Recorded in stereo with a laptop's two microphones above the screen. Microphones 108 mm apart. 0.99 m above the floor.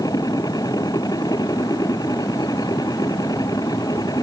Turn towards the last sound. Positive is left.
turn(degrees=35)  # may be behind; listen again after turning